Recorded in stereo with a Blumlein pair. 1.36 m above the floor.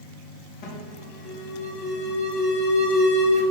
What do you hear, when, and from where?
0.6 s an alarm: 45° left, 4.5 m